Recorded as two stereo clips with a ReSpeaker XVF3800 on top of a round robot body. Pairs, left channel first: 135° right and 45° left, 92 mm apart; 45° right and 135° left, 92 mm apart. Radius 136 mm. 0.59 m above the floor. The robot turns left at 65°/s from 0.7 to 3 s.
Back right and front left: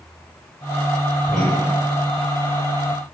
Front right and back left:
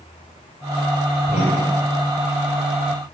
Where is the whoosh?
45° right, 0.5 m; by 1.7 s 75° right, 0.5 m.